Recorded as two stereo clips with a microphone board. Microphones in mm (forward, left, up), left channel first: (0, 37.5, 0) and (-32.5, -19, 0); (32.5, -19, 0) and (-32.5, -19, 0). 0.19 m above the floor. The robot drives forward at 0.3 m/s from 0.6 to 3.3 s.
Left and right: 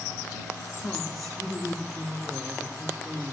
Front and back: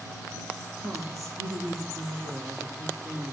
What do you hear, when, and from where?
0.8 s a woman speaking: 150° left, 5 m; by 3.3 s 155° left, 5.5 m